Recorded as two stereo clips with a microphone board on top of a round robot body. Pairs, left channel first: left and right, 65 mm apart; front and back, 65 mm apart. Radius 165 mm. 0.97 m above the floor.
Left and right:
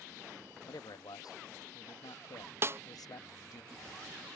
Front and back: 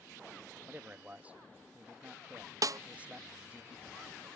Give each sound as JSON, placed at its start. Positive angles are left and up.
{"t": 0.7, "sound": "a man speaking", "azimuth_deg": 110}
{"t": 2.6, "sound": "a snare drum", "azimuth_deg": -140}